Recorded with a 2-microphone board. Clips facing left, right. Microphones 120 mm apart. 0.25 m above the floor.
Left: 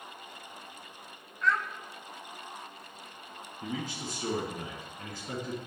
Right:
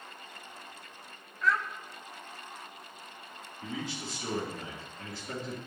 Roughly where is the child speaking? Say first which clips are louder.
Even; centre.